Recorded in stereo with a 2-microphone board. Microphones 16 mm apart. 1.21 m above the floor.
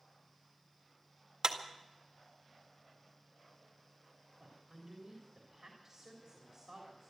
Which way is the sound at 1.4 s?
50° right (ahead or behind).